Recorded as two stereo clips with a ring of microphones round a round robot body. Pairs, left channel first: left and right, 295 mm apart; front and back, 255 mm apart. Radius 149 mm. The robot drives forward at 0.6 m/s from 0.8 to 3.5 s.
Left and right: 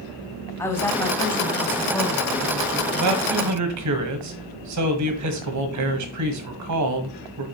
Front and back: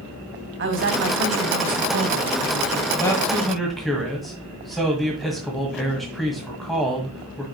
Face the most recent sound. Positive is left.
turn(degrees=-90)